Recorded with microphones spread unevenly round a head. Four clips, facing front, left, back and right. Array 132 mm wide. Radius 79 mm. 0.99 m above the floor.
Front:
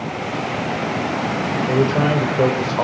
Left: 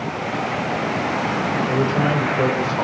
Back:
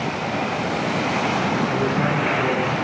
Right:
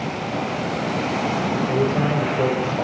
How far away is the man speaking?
About 3.5 m.